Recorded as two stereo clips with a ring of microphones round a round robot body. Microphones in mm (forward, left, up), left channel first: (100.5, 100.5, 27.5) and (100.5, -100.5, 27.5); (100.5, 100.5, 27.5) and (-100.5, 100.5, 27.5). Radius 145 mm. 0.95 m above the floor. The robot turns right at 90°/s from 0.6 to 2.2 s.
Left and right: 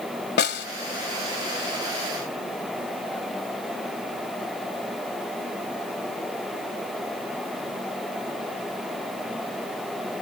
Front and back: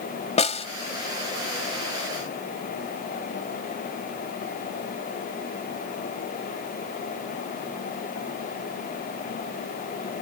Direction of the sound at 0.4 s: 60° left.